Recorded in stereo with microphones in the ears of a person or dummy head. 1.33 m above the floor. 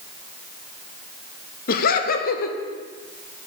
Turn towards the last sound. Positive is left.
turn(degrees=55)  # may be behind; listen again after turning